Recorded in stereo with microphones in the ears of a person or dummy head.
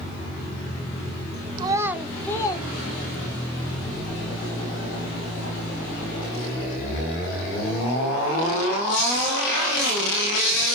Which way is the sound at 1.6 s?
30° right (ahead or behind).